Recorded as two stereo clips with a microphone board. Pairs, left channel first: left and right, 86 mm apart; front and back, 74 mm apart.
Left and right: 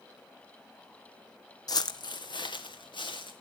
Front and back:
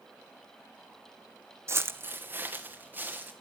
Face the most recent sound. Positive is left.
turn(degrees=115)